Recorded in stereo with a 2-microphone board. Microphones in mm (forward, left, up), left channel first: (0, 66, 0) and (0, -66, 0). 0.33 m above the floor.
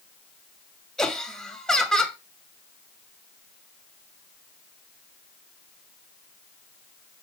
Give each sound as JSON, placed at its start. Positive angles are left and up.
{"t": 1.0, "sound": "laughter", "side_deg": 5, "distance_m": 2.5}